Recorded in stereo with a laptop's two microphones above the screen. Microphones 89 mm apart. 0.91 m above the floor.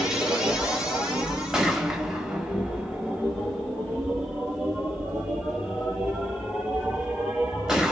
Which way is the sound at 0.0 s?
10° right (ahead or behind).